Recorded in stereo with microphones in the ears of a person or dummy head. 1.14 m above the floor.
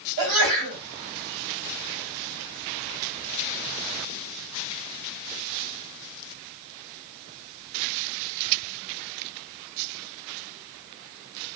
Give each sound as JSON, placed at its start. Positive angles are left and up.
{"t": 0.2, "sound": "a sneeze", "side_deg": -70, "distance_m": 2.0}